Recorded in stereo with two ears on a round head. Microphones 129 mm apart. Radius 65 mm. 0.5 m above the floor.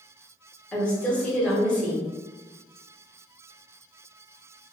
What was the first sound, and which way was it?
A woman speaking, 10° left (ahead or behind).